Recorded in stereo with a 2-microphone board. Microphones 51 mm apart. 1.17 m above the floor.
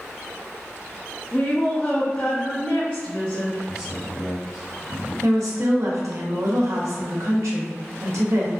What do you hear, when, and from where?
1.3 s a woman speaking: 30° left (ahead or behind), 0.7 m
3.7 s a man speaking: 20° right (ahead or behind), 1.5 m
5.2 s a woman speaking: 75° right (ahead or behind), 0.8 m